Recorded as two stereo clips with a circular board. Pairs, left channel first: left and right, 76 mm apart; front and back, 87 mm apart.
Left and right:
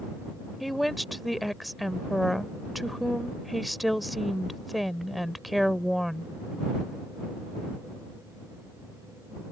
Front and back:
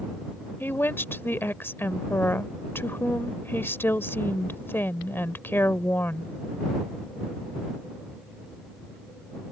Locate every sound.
0.6 s a woman speaking: straight ahead